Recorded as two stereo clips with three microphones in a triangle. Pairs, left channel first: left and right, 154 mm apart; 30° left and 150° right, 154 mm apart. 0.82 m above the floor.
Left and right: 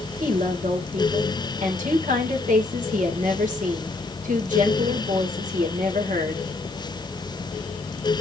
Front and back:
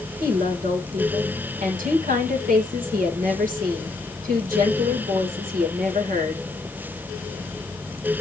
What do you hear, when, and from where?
0.2 s a woman speaking: 125° right, 3 m